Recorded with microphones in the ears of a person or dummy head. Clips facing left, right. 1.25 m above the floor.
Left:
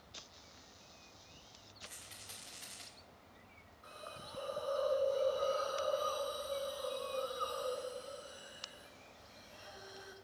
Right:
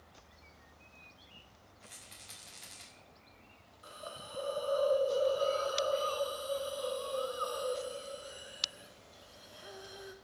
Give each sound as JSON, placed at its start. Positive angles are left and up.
{"t": 1.8, "sound": "a rattle", "side_deg": 0, "distance_m": 2.5}
{"t": 3.8, "sound": "a hiss", "side_deg": -40, "distance_m": 0.9}